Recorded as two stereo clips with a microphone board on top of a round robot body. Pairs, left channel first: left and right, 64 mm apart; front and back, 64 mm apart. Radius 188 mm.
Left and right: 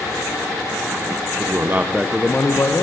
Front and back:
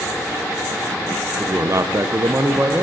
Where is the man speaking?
125° right, 1.1 m; by 2.8 s 125° left, 1.2 m.